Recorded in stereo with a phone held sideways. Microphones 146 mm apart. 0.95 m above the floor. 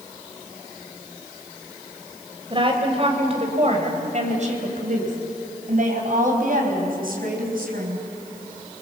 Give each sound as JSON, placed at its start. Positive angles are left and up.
{"t": 2.5, "sound": "a woman speaking", "side_deg": -35, "distance_m": 3.5}